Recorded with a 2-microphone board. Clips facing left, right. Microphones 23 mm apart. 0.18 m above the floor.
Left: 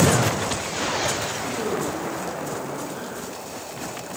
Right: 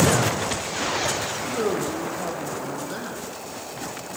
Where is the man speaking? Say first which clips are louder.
Right 3 dB; 55° right (ahead or behind), 6.5 m.